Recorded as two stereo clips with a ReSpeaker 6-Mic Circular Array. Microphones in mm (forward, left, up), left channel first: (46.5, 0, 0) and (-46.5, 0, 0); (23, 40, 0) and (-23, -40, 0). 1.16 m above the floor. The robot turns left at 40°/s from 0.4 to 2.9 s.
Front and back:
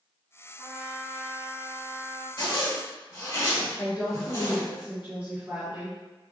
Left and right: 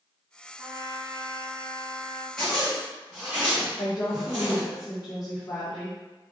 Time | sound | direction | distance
0.6 | a trumpet | 115° right | 1.4 m
2.4 | a zipper | 20° right | 1.5 m
3.8 | a woman speaking | 110° left | 1.0 m